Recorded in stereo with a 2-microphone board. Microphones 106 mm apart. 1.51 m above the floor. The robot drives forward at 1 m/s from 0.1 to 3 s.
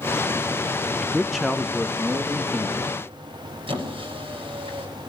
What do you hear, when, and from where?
1.0 s a man speaking: centre (ahead or behind), 0.6 m
3.7 s a squeak: 55° right (ahead or behind), 5 m